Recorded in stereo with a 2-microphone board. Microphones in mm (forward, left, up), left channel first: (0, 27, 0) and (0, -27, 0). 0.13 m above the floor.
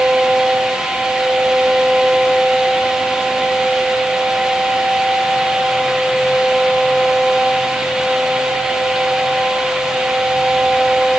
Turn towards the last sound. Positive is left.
No sound to turn to.